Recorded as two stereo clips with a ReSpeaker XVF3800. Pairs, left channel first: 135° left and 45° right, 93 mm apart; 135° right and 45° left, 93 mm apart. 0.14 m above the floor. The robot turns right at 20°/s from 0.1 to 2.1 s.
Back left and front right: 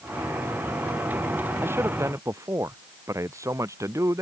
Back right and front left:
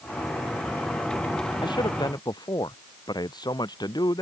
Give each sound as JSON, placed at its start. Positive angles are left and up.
{"t": 1.6, "sound": "a man speaking", "azimuth_deg": -110}